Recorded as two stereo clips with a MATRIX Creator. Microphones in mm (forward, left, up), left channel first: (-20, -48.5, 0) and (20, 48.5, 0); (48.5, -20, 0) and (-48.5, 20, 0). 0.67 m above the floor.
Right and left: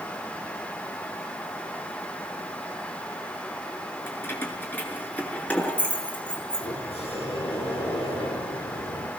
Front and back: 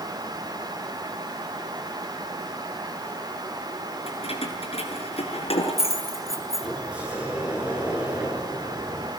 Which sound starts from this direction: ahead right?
Keys jangling, at 4.1 s.